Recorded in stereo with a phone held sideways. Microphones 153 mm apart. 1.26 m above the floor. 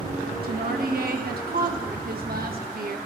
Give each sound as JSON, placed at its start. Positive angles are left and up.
{"t": 0.4, "sound": "a woman speaking", "side_deg": -80, "distance_m": 1.4}